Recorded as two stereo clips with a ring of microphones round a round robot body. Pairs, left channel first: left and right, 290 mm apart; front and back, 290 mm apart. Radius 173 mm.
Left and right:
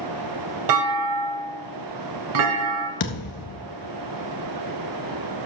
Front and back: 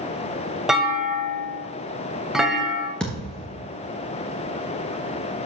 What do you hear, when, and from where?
0.7 s a clunk: 90° right, 1.7 m
3.0 s a thud: 90° left, 1.3 m